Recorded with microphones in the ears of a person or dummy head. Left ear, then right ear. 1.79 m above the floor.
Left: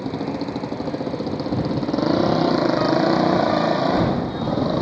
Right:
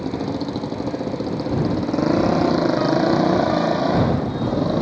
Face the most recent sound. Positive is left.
turn(degrees=15)  # may be behind; listen again after turning